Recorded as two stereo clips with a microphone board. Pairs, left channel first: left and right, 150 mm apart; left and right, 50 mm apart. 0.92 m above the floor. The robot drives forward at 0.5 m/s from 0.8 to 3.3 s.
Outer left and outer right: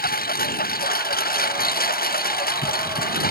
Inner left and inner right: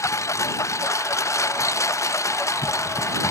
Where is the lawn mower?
80° left; by 3.3 s 85° left.